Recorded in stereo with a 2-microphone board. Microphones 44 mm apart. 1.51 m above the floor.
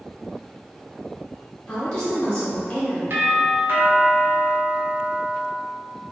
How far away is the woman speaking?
About 1.7 m.